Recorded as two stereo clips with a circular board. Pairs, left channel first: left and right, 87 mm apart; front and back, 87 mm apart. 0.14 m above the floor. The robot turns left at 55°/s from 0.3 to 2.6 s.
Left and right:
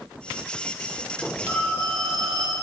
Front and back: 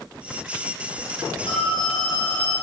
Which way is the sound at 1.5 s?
20° right.